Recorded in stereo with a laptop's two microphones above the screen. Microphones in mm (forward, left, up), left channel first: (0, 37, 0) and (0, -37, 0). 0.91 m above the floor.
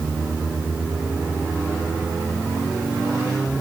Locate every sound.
Only background noise.